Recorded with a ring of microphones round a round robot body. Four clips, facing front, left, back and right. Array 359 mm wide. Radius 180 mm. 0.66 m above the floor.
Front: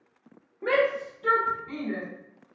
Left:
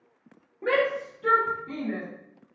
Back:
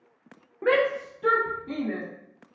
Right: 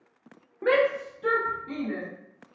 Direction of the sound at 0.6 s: 140° right.